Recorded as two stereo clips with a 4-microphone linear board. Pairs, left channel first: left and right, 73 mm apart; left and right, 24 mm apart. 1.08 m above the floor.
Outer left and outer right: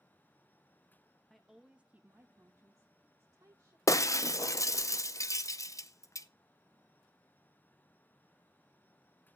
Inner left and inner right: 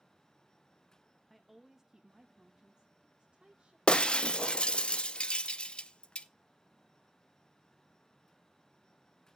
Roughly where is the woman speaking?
Centre.